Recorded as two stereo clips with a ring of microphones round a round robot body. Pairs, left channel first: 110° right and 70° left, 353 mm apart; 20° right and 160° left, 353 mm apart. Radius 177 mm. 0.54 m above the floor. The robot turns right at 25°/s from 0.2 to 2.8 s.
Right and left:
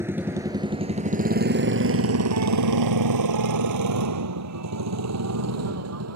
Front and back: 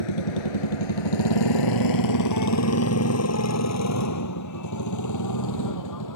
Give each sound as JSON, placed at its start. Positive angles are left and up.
{"t": 0.0, "sound": "a motorcycle", "azimuth_deg": -15}